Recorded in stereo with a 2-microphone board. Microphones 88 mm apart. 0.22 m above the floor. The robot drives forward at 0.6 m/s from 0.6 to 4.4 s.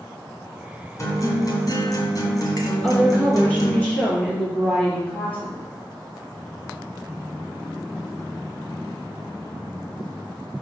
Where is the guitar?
40° left (ahead or behind), 1.9 m.